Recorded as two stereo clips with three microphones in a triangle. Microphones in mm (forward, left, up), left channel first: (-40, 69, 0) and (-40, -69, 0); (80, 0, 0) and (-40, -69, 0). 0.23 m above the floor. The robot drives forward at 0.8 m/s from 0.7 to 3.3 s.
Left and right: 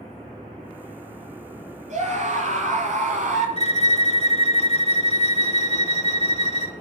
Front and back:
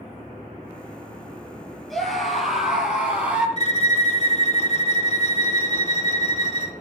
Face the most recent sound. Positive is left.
turn(degrees=55)